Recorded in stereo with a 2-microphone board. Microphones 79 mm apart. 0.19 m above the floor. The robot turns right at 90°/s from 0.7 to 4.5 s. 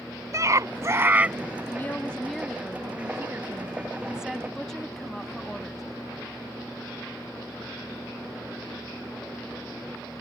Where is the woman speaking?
25° left (ahead or behind); by 5.8 s 5° left (ahead or behind).